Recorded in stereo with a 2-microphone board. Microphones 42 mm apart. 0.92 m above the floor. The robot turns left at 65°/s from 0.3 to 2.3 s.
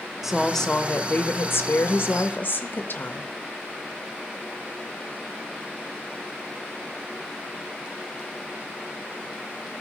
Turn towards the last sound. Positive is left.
turn(degrees=55)